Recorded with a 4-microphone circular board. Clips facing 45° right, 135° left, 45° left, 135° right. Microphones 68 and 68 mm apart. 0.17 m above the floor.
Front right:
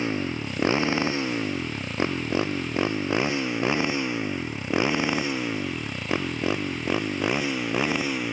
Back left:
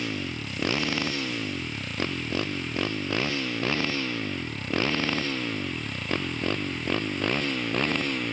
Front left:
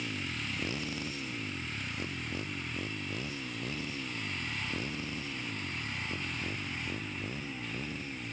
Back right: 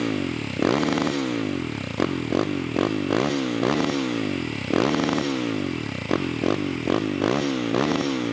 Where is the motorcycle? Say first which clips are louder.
Front right 5 dB, back right 13 dB; 110° right; by 8.3 s 125° right.